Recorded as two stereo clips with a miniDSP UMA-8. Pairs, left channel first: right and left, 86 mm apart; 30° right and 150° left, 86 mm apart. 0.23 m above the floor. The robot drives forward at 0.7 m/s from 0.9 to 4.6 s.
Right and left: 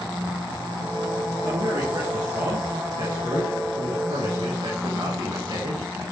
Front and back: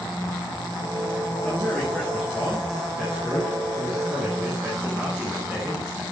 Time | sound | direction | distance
1.4 | a man speaking | 50° left | 5 m